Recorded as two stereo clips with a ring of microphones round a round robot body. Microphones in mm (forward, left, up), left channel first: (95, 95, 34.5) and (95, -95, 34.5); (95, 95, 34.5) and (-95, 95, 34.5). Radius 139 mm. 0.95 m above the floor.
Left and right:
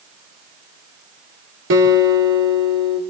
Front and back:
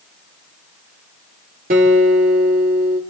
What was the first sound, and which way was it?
A guitar, 125° right.